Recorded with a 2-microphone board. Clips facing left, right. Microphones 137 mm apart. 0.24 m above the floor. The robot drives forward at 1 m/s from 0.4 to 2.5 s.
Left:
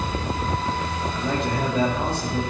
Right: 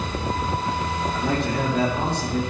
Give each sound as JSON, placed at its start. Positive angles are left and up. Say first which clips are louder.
{"t": 1.1, "sound": "a man speaking", "louder": "right 1 dB", "side_deg": -70, "distance_m": 5.5}